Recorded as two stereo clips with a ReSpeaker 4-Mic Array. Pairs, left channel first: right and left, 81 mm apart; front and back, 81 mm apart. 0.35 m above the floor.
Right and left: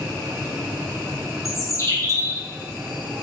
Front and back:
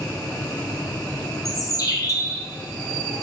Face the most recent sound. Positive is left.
turn(degrees=-40)